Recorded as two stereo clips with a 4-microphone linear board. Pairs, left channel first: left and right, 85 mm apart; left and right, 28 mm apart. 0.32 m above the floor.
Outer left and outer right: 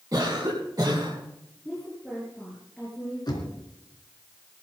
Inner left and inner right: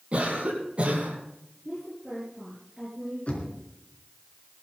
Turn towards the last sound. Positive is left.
turn(degrees=50)  # may be behind; listen again after turning